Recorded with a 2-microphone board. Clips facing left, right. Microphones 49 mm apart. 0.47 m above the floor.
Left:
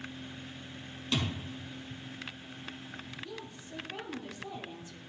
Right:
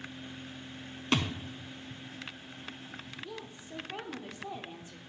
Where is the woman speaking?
25° right (ahead or behind), 0.8 m.